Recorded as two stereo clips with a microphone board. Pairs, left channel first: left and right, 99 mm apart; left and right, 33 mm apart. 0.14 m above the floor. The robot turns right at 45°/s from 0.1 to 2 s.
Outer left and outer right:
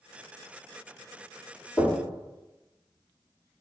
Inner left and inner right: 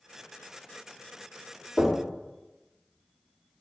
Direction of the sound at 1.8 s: 15° left (ahead or behind).